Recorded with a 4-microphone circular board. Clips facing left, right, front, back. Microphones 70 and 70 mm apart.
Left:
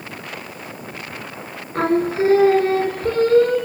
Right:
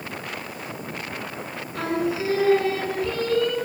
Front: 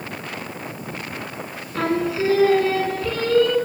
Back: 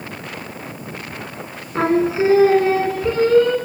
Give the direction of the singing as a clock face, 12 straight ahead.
8 o'clock.